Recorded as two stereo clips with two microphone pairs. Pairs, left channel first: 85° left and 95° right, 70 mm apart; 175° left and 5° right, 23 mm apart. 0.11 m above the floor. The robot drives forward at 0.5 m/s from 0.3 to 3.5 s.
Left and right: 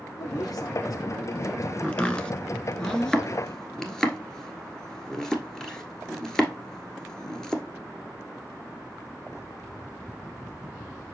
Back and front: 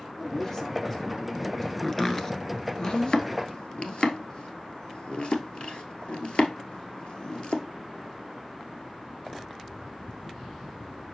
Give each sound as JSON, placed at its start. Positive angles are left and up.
{"t": 0.2, "sound": "a man speaking", "azimuth_deg": 105, "distance_m": 4.5}
{"t": 1.8, "sound": "chopping", "azimuth_deg": 120, "distance_m": 1.0}